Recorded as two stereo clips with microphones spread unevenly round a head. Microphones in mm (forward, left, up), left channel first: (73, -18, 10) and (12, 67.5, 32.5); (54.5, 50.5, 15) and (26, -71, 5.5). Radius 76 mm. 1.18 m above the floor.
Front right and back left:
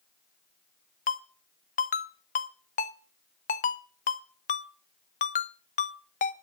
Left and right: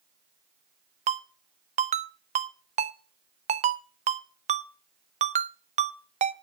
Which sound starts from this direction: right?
A ringtone, at 1.1 s.